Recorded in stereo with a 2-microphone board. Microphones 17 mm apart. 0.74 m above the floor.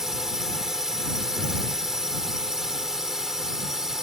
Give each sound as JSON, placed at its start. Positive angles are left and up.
{"t": 0.0, "sound": "a drone", "side_deg": -30}